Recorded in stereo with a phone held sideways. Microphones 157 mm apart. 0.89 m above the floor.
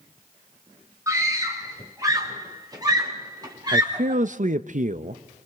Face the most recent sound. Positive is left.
turn(degrees=-55)  # may be behind; listen again after turning